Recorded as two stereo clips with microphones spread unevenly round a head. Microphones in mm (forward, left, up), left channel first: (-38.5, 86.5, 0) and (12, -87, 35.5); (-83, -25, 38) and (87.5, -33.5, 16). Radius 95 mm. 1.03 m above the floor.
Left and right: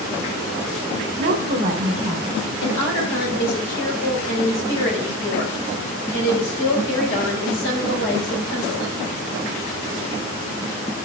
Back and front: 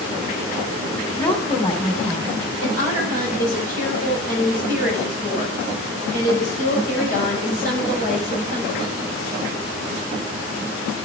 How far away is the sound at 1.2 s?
About 3 m.